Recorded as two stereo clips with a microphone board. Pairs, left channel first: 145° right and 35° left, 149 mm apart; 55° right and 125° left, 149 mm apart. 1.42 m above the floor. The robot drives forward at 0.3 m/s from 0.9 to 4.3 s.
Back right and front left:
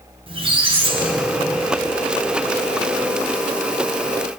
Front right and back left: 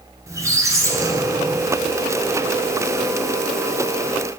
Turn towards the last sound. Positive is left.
turn(degrees=160)